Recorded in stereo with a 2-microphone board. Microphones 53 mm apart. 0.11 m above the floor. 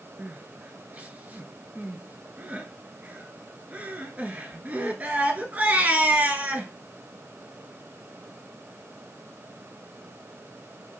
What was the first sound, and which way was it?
Crying, 30° right (ahead or behind).